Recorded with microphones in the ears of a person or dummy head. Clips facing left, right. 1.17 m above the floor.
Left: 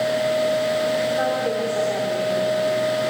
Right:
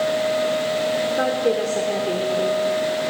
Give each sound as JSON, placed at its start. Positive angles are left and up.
{"t": 1.2, "sound": "a woman speaking", "side_deg": -45, "distance_m": 3.5}